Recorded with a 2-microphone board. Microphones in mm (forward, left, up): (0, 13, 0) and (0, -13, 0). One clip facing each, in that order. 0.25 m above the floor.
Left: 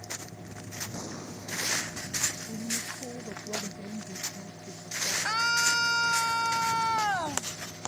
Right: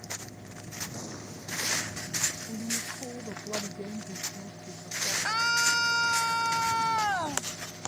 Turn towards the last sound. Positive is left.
turn(degrees=0)  # may be behind; listen again after turning